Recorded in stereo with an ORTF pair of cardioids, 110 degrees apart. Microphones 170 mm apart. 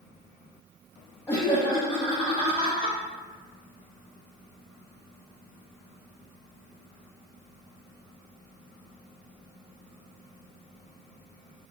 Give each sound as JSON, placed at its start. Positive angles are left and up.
{"t": 1.3, "sound": "laughter", "azimuth_deg": 15, "distance_m": 0.6}